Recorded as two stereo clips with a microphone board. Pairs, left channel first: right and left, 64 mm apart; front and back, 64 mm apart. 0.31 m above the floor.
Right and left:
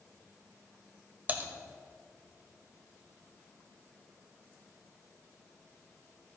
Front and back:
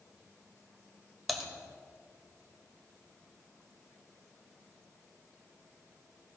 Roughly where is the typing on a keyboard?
Left.